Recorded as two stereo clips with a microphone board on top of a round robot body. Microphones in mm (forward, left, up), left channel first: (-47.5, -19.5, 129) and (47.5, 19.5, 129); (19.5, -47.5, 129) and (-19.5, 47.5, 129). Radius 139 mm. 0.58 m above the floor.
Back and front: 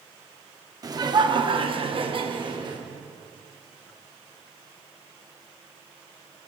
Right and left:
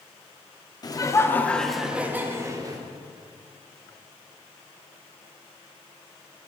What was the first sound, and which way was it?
Laughter, 25° right.